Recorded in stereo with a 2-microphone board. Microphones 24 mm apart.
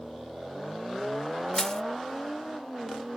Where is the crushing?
30° left (ahead or behind).